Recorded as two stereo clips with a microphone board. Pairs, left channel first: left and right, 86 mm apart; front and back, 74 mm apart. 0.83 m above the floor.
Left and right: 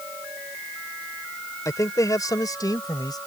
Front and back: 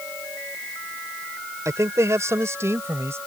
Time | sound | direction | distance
1.6 | a man speaking | 140° left | ?